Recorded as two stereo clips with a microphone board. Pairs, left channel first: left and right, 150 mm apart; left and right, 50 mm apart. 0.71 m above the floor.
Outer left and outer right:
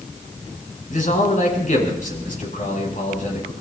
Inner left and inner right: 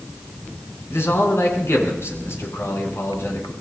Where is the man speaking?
60° left (ahead or behind), 6.5 m.